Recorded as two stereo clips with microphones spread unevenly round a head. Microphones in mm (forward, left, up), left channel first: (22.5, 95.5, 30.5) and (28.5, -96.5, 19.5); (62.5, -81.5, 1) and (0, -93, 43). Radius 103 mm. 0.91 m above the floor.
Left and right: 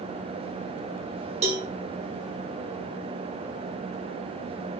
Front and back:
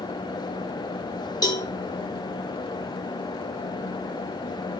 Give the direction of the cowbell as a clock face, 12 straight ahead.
1 o'clock.